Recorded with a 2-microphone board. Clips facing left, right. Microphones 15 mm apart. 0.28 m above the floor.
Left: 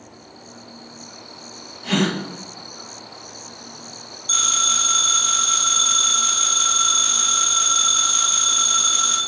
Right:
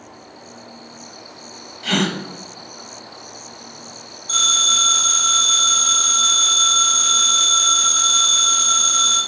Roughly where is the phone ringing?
Left.